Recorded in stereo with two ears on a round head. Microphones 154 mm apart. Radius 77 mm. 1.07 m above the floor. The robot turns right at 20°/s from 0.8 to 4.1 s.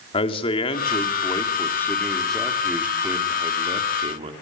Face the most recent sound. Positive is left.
turn(degrees=-145)